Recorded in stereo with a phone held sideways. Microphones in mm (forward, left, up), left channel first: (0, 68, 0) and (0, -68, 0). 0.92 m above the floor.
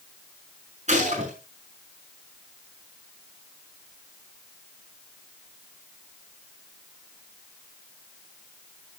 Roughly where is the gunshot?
Right.